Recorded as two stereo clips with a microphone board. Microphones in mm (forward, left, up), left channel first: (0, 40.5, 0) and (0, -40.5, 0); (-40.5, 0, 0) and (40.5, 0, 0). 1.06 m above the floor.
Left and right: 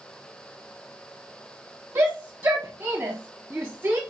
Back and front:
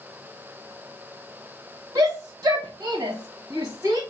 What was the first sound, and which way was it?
A shout, 50° right.